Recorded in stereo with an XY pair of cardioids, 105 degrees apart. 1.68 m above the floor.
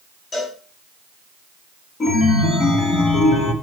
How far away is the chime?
About 2 m.